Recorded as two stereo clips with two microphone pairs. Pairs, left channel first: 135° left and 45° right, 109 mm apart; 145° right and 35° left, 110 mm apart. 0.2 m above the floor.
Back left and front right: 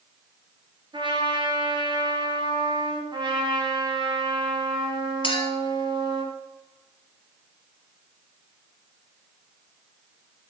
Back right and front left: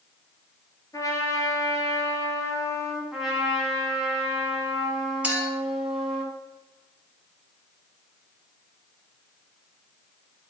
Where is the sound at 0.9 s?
85° right, 1.3 m.